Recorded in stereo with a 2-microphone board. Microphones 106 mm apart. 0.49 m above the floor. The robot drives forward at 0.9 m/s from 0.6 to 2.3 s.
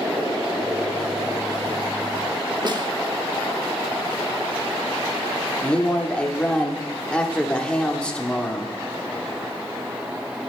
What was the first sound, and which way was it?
A snare drum, 45° right (ahead or behind).